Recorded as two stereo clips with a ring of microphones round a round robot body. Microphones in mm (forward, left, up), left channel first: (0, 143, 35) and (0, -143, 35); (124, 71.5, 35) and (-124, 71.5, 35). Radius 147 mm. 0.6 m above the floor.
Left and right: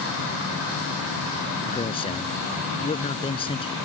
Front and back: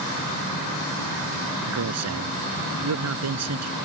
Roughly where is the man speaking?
Behind.